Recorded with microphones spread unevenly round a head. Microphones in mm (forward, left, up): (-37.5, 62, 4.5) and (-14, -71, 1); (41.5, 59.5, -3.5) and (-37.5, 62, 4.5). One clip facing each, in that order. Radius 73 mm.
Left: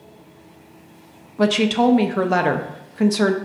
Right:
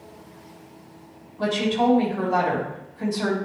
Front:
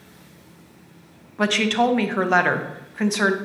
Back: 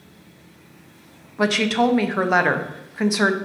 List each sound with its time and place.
1.4 s a woman speaking: 95° left, 0.9 m